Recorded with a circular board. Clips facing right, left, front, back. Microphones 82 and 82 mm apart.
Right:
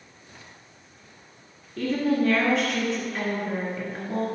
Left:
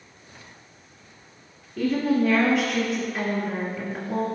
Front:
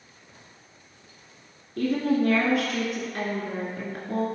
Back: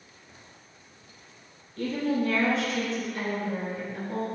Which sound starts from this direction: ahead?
A woman speaking, at 1.8 s.